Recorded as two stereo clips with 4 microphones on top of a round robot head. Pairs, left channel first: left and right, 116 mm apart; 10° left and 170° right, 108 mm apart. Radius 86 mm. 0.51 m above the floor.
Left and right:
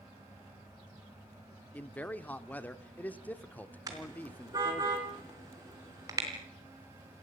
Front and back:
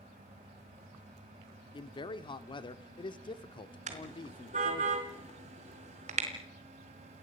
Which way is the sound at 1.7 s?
20° left.